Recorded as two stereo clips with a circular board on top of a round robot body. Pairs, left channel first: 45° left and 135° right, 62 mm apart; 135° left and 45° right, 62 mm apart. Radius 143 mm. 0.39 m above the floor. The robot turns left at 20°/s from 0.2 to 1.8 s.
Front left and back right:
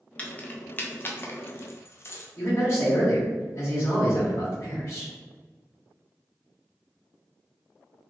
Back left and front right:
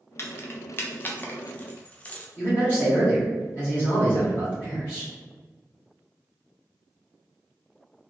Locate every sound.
0.2 s keys jangling: 105° left, 0.8 m; by 2.3 s 75° left, 0.8 m
2.4 s a man speaking: 85° left, 1.9 m